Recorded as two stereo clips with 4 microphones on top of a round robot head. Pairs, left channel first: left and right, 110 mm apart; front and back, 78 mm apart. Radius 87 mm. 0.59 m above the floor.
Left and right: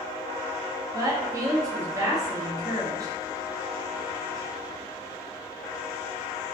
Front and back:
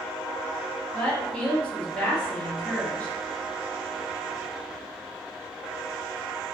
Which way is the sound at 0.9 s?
65° right.